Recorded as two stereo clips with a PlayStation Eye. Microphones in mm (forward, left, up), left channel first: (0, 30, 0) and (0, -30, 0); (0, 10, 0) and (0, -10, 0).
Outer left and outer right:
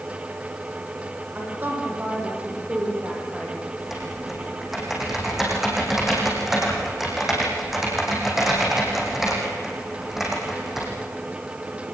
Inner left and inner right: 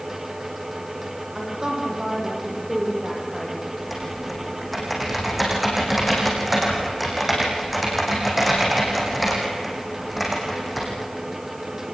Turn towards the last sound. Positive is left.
turn(degrees=-5)  # may be behind; listen again after turning